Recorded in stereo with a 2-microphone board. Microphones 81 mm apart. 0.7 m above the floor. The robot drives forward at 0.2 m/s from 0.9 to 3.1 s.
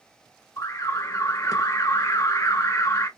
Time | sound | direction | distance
0.6 | an alarm | 40° left (ahead or behind) | 1.2 m